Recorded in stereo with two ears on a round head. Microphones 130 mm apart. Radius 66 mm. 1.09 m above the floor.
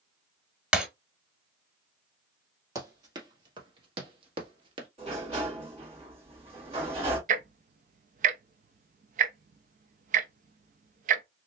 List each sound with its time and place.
0.7 s breaking glass: 5° right (ahead or behind), 1.1 m
2.8 s running footsteps: 25° right (ahead or behind), 1.7 m; by 4.9 s 35° right (ahead or behind), 1.3 m
5.0 s a sliding door: 40° right (ahead or behind), 2 m
7.3 s ticking: 55° right (ahead or behind), 0.6 m